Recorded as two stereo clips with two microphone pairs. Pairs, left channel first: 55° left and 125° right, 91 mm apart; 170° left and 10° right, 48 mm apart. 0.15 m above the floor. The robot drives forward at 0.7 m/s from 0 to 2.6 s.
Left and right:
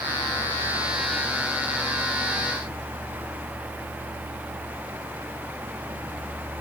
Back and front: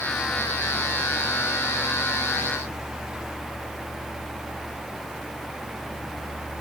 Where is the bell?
I don't hear a bell.